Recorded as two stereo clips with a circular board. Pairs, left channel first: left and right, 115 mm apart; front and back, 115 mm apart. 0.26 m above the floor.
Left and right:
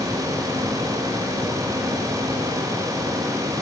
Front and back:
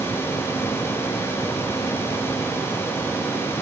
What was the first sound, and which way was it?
Only background noise.